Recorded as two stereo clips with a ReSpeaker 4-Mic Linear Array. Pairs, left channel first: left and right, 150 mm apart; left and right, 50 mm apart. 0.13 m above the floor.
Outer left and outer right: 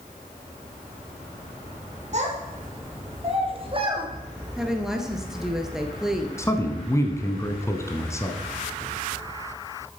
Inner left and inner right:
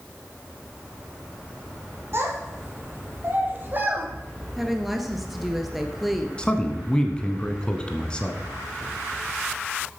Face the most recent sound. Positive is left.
turn(degrees=20)  # may be behind; listen again after turning